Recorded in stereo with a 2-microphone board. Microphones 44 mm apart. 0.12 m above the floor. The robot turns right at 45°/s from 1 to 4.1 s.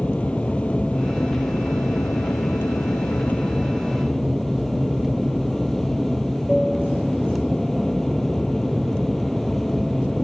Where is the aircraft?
30° left; by 10.2 s 170° left.